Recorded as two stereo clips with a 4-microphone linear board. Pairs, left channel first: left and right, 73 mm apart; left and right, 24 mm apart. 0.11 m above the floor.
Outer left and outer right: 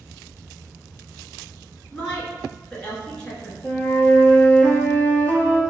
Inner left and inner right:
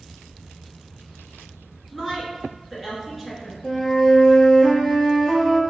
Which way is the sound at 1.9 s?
15° left (ahead or behind).